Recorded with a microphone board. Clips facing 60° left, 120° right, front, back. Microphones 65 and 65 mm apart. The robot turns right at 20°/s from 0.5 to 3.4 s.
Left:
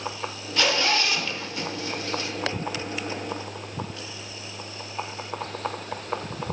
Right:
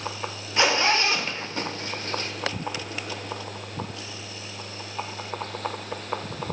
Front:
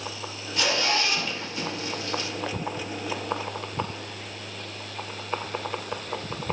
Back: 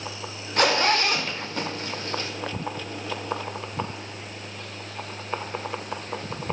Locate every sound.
0.6 s a zipper: straight behind, 1.1 m; by 2.3 s 145° right, 1.1 m